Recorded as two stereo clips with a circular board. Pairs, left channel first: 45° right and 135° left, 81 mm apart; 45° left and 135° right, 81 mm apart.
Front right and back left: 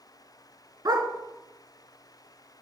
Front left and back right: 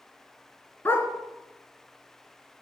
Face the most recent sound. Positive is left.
turn(degrees=105)